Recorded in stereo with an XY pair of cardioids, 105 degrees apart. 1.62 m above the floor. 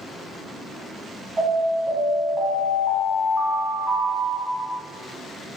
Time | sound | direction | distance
1.4 | an alarm | 40° right | 1.7 m